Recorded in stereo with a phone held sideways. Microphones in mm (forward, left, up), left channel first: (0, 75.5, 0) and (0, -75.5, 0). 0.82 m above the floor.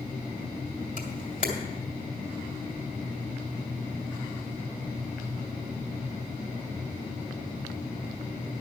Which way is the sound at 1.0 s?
55° left (ahead or behind).